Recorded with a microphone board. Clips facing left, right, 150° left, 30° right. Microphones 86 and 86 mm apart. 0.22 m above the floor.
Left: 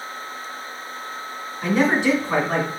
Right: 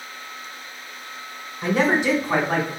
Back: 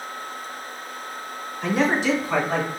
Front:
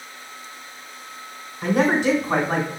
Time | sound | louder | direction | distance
1.6 | a man speaking | left 1 dB, front 2 dB | 35° right | 2.5 m